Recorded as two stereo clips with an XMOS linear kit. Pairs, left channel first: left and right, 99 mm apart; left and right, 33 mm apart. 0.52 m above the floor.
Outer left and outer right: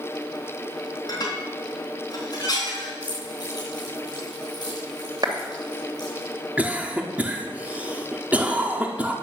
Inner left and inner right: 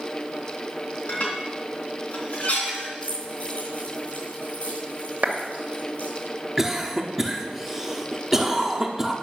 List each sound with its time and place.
1.1 s dishes clattering: 45° left (ahead or behind), 3.5 m
3.0 s keys jangling: 50° left (ahead or behind), 6 m
5.2 s a clap: 45° right (ahead or behind), 2 m
6.6 s a cough: 15° right (ahead or behind), 1.1 m